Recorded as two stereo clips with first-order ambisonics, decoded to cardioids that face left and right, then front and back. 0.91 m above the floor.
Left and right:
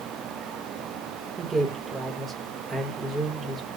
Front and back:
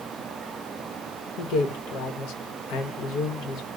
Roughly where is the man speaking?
Ahead.